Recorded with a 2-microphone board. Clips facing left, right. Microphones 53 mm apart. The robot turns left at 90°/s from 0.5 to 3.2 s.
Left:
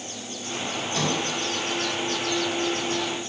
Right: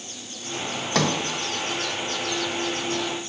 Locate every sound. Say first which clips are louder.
0.9 s a sliding door: right 5 dB; 85° right, 1.7 m; by 1.1 s 75° right (ahead or behind), 1.7 m